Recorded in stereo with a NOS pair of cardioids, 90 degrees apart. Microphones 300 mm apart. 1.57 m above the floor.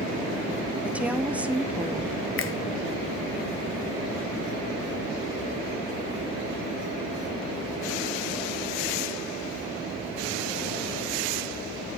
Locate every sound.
0.8 s a woman speaking: 5° right, 1.1 m
2.4 s a finger snap: 45° left, 1.1 m